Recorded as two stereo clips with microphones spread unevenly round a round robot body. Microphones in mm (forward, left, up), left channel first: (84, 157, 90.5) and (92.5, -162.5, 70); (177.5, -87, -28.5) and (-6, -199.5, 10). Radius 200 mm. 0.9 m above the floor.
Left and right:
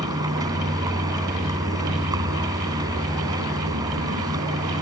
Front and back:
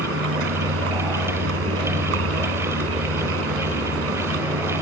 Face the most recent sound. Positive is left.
turn(degrees=-170)